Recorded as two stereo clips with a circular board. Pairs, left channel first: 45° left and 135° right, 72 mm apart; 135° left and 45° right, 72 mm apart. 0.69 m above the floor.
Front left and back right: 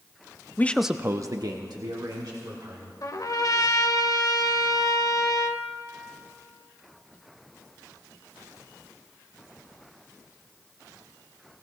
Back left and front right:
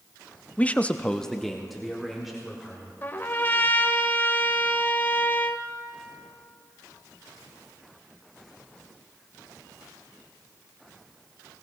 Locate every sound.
0.6 s a man speaking: 80° left, 0.5 m; by 2.9 s 130° right, 2.5 m
3.0 s a trumpet: 75° left, 0.7 m